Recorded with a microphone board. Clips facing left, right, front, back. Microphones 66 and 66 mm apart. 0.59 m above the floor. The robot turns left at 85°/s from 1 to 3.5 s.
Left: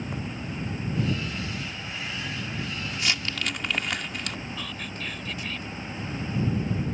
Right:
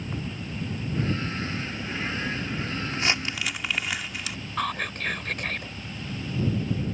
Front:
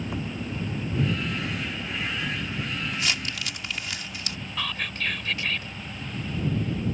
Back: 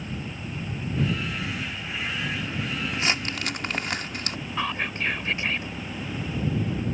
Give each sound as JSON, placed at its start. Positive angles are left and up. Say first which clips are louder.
{"t": 0.0, "sound": "an engine running", "louder": "left 1 dB, front 3 dB", "azimuth_deg": 5}
{"t": 2.9, "sound": "crumpling", "louder": "right 2 dB, back 2 dB", "azimuth_deg": -125}
{"t": 4.6, "sound": "whispering", "louder": "right 7 dB, back 3 dB", "azimuth_deg": -115}